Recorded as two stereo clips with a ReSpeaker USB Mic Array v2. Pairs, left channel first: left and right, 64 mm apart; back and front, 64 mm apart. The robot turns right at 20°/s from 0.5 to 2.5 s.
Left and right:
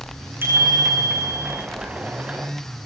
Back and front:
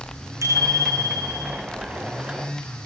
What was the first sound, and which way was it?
A bicycle bell, 35° right.